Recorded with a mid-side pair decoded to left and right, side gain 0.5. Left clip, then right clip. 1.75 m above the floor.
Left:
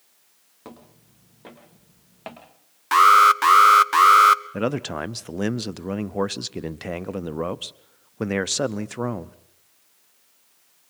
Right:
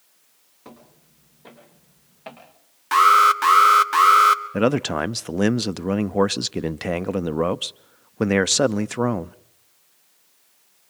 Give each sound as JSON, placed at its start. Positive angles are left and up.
{"t": 0.7, "sound": "footsteps", "azimuth_deg": 45, "distance_m": 6.5}
{"t": 2.9, "sound": "an alarm", "azimuth_deg": 15, "distance_m": 1.0}
{"t": 4.5, "sound": "a man speaking", "azimuth_deg": -30, "distance_m": 0.6}